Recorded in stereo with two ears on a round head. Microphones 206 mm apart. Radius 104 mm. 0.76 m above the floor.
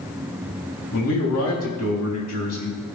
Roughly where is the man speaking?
Left.